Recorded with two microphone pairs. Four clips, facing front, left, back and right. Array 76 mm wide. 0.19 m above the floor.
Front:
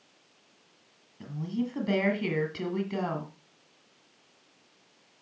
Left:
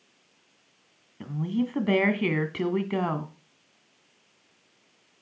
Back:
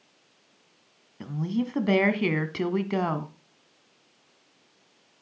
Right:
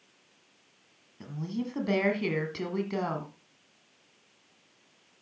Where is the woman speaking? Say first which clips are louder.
Left 6 dB, back 4 dB; 145° left, 1.5 m.